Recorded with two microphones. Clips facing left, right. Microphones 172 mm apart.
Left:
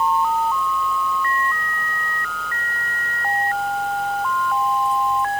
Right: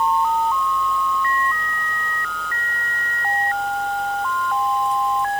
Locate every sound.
Only background noise.